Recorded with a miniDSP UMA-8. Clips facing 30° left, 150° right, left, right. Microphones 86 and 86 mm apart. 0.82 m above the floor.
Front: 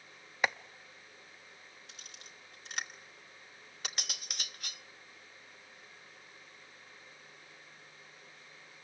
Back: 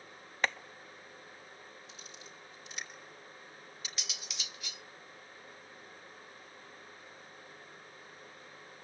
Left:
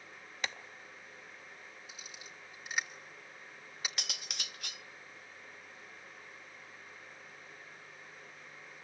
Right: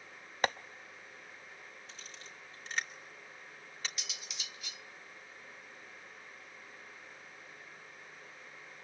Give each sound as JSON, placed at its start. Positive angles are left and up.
{"t": 0.4, "sound": "tapping", "azimuth_deg": -50, "distance_m": 0.6}
{"t": 1.9, "sound": "a camera shutter", "azimuth_deg": 10, "distance_m": 2.5}
{"t": 4.0, "sound": "cutlery clinking", "azimuth_deg": 65, "distance_m": 0.7}